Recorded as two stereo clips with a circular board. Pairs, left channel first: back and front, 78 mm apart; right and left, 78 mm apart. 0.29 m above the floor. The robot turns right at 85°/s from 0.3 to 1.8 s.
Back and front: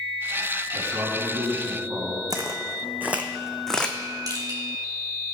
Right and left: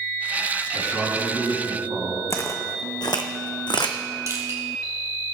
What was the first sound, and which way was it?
A man speaking, 35° right.